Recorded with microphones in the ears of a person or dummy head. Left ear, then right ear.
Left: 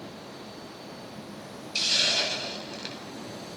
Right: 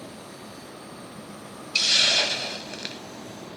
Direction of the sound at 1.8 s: 20° right (ahead or behind).